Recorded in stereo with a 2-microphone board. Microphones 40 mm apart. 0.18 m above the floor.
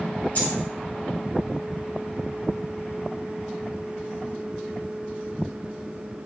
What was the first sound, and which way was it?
A dropped coin, 45° left (ahead or behind).